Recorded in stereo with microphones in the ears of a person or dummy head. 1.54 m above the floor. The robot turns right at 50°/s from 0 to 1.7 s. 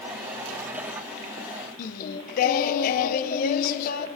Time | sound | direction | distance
1.8 | singing | 45° left (ahead or behind) | 1.0 m